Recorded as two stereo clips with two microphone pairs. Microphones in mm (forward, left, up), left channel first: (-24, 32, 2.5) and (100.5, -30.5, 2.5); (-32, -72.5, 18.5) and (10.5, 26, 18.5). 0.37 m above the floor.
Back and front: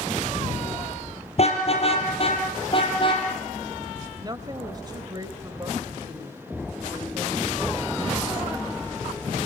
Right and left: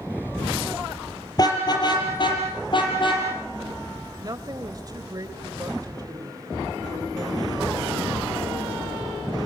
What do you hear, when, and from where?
1.4 s a car horn: 165° right, 5.5 m; by 3.3 s 155° right, 7 m
4.2 s a woman speaking: 25° left, 2 m